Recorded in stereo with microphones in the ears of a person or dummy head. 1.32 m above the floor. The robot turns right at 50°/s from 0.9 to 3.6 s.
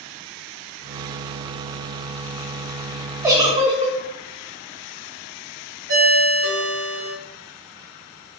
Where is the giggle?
15° right (ahead or behind), 0.6 m; by 4.0 s 30° right (ahead or behind), 0.6 m.